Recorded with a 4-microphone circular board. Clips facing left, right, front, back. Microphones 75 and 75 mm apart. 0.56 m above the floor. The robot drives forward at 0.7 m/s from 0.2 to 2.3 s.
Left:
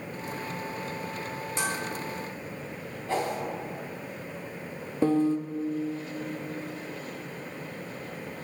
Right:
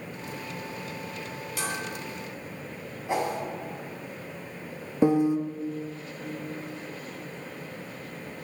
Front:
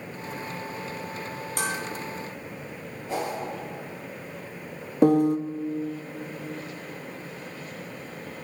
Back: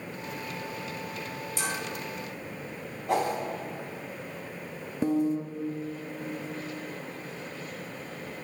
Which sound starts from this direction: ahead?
A piano, at 5.0 s.